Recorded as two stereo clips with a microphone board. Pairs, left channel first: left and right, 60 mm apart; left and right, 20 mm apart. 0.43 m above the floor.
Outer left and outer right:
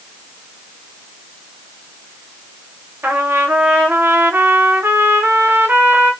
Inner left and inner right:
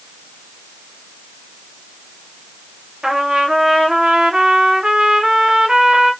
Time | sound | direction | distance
3.0 | a trumpet | 35° right (ahead or behind) | 0.7 m